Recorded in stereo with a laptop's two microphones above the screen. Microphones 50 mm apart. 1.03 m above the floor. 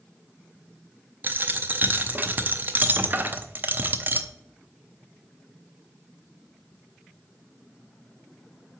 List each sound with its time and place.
1.2 s a dropped coin: 35° right (ahead or behind), 0.6 m